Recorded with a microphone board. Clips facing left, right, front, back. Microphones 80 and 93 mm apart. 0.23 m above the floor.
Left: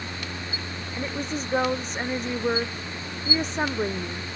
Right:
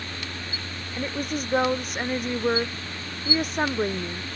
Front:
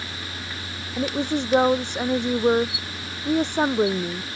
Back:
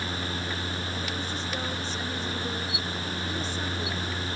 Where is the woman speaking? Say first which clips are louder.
Right 1 dB, front 9 dB; 5° right.